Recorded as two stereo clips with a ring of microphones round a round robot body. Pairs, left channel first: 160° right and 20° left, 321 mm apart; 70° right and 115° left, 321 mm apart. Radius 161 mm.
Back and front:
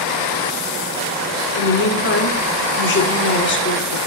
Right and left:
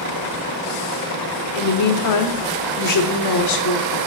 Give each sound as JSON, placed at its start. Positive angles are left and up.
{"t": 1.5, "sound": "a woman speaking", "azimuth_deg": -100, "distance_m": 1.4}